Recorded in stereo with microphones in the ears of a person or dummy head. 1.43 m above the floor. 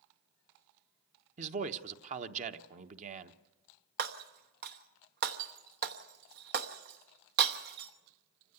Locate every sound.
1.4 s a man speaking: 45° right (ahead or behind), 1.0 m
4.0 s breaking glass: 55° right (ahead or behind), 1.1 m